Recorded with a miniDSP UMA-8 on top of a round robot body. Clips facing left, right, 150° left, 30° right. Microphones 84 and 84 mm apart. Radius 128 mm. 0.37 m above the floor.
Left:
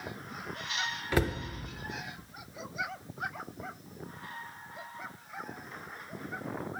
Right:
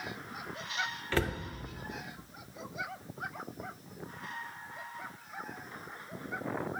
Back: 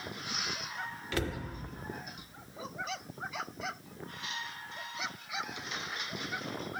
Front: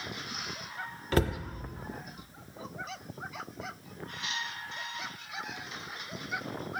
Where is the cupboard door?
15° left, 0.6 m.